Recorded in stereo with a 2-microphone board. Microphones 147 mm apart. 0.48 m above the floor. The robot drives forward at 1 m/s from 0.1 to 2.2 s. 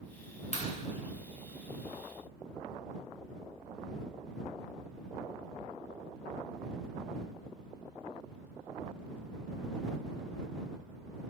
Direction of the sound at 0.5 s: 55° left (ahead or behind).